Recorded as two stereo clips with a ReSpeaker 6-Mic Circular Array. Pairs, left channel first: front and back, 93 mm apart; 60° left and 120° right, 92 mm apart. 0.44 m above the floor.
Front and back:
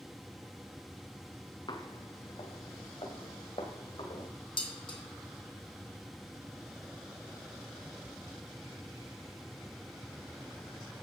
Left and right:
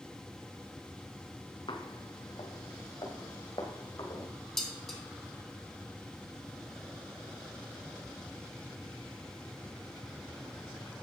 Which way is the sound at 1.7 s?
25° left.